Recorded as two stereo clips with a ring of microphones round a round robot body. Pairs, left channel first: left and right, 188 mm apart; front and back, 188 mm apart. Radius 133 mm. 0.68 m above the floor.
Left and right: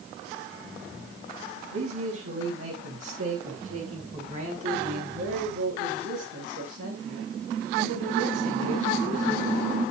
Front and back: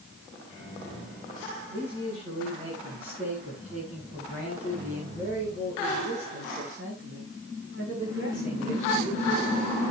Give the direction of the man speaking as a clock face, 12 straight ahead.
4 o'clock.